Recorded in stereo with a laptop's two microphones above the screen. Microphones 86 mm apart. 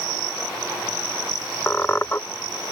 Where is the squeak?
25° left (ahead or behind).